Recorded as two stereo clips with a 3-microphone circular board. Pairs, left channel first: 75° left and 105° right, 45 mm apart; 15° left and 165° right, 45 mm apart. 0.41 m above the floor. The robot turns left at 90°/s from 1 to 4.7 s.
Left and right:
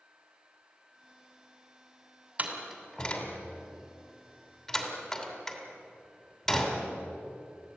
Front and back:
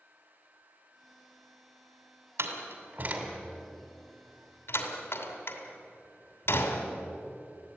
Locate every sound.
2.4 s a door slam: 160° right, 2.5 m; by 6.9 s 10° right, 2.5 m